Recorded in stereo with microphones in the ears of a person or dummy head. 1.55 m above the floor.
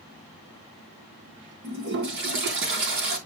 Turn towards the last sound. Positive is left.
turn(degrees=-65)  # may be behind; listen again after turning